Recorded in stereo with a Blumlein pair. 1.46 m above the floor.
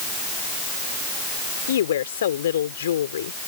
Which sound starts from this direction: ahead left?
A woman speaking, at 1.7 s.